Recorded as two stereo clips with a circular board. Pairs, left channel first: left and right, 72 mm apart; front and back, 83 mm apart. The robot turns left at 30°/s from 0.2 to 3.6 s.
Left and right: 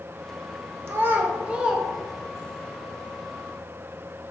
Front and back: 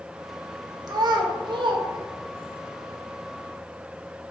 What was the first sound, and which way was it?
A child speaking, 145° right.